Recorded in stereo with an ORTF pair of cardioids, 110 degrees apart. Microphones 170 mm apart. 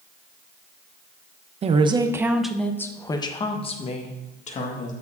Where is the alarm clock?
No alarm clock in this recording.